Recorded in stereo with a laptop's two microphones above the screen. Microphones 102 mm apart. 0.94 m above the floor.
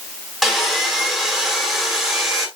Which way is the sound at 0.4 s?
Centre (ahead or behind).